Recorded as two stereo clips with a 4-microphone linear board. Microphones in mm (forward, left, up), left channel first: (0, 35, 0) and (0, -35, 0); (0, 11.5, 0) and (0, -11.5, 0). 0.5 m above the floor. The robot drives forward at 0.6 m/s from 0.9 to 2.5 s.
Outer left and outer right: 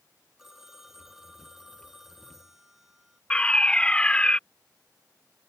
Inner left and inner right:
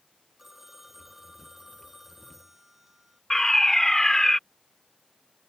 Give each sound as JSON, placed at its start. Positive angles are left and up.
{"t": 0.4, "sound": "a phone ringing", "side_deg": -5}
{"t": 3.3, "sound": "a fire alarm", "side_deg": 15}